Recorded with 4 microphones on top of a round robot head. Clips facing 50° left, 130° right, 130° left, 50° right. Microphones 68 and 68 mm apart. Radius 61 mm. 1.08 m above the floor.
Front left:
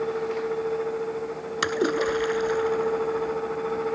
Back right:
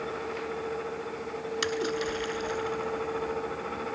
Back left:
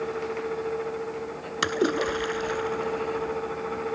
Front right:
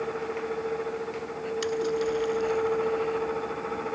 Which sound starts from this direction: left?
A splash, at 1.6 s.